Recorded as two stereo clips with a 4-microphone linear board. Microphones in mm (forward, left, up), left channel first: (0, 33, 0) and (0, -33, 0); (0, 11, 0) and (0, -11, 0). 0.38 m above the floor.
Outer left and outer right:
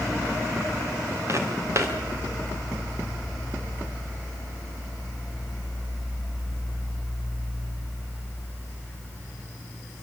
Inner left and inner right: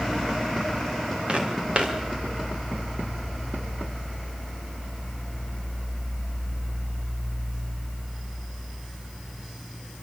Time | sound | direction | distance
1.3 | footsteps | 45° right (ahead or behind) | 4.5 m